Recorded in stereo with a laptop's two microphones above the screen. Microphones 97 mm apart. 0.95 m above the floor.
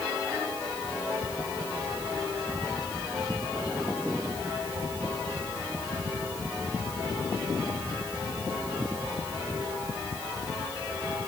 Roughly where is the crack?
I don't hear a crack.